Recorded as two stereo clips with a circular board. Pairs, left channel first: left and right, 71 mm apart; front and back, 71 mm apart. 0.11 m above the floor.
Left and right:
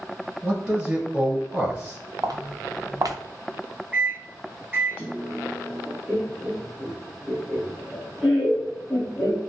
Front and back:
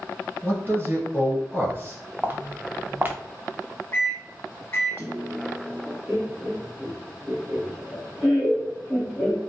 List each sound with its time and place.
0.4 s a man speaking: 160° right, 1.6 m
2.2 s footsteps: 120° right, 0.7 m
3.9 s a microwave: 40° right, 1.5 m
6.1 s laughter: 160° right, 1.4 m